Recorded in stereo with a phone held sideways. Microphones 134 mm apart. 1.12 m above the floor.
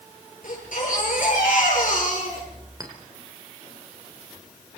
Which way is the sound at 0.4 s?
85° left.